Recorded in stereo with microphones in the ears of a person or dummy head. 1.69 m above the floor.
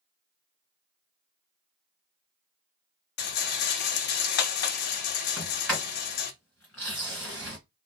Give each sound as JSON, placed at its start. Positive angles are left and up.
{"t": 3.2, "sound": "a rattle", "side_deg": 50, "distance_m": 0.6}
{"t": 5.4, "sound": "a sliding door", "side_deg": 5, "distance_m": 2.0}